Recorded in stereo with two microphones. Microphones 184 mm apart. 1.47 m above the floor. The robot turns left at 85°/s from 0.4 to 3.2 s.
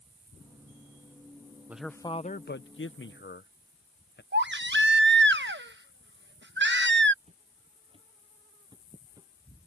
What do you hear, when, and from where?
1.7 s a man speaking: 10° right (ahead or behind); by 4.2 s 60° left (ahead or behind)
4.3 s a baby crying: 70° right (ahead or behind)
7.2 s footsteps: 30° right (ahead or behind); by 9.3 s 15° right (ahead or behind)